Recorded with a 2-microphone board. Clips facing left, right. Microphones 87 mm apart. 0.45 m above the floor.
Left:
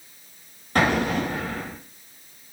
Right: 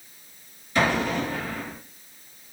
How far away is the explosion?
About 1.8 m.